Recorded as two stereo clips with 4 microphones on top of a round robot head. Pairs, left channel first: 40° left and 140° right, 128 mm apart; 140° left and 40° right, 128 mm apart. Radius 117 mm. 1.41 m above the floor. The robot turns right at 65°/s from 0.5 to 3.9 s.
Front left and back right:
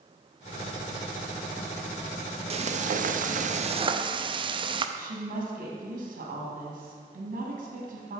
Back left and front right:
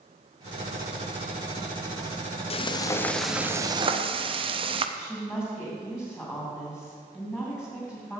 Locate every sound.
2.5 s frying: straight behind, 0.6 m; by 4.9 s 90° right, 0.6 m
5.0 s a woman speaking: 125° right, 2.5 m